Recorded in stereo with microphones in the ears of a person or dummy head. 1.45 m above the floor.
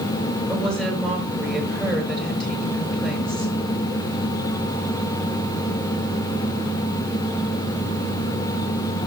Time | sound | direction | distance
0.5 | a woman speaking | 5° left (ahead or behind) | 6 m